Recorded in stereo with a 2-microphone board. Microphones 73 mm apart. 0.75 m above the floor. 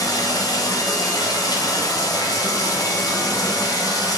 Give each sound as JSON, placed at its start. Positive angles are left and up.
{"t": 0.0, "sound": "running water", "side_deg": 60, "distance_m": 1.0}